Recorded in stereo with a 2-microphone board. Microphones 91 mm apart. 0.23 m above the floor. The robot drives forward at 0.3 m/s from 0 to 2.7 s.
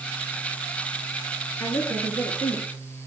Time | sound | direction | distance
1.6 | a woman speaking | 35° left (ahead or behind) | 4.5 m